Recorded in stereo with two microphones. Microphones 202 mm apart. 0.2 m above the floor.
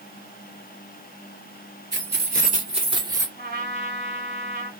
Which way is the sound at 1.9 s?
60° right (ahead or behind).